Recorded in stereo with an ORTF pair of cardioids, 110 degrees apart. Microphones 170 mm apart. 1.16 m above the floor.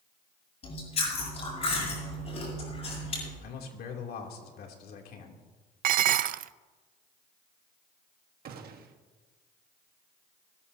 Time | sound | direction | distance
0.6 | chewing | 40° left | 8.5 m
3.4 | a man speaking | 65° left | 3 m
5.8 | dishes clattering | 55° right | 0.5 m
8.4 | a gunshot | 60° right | 1.4 m